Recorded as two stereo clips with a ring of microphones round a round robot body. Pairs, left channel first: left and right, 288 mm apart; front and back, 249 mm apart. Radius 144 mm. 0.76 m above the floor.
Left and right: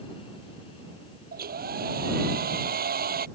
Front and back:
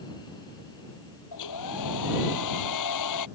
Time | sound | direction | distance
1.3 | a hair dryer | 30° right | ?